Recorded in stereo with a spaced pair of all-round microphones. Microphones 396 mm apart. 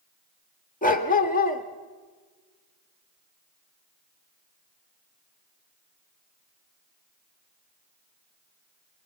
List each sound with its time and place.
0.8 s a dog barking: 20° left (ahead or behind), 1.4 m